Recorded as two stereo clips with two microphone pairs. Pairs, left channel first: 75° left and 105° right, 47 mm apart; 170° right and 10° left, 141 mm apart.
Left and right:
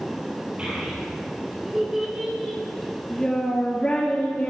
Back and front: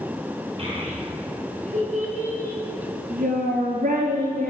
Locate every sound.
0.6 s a child speaking: 40° right, 2.5 m; by 4.5 s 25° left, 1.9 m